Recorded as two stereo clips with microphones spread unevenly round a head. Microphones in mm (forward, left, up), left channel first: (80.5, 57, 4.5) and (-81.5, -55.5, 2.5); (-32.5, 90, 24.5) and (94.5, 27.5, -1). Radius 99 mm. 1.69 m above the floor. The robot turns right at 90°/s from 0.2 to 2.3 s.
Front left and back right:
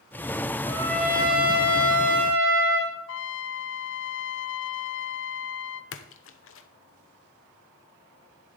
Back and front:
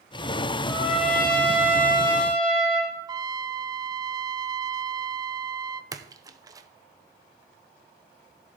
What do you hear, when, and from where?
0.7 s a trumpet: 90° left, 4 m; by 3.0 s 120° right, 4 m
3.1 s a trumpet: 40° left, 0.6 m
5.9 s a splash: 45° left, 0.8 m